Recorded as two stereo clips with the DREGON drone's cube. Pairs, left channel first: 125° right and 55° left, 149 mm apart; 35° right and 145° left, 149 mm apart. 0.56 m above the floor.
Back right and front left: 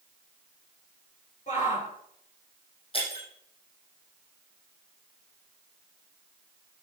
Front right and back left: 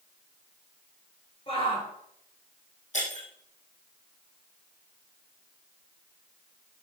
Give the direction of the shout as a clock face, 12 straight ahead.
3 o'clock.